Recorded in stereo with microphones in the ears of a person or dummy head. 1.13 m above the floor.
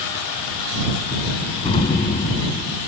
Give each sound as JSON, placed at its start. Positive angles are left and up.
{"t": 1.6, "sound": "an explosion", "side_deg": 30}